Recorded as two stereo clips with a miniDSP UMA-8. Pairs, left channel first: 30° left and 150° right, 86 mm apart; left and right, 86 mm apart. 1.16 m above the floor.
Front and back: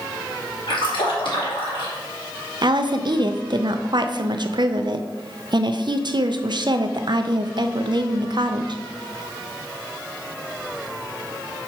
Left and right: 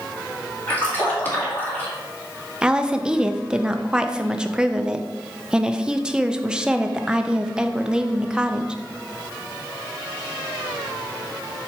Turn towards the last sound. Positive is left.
turn(degrees=-170)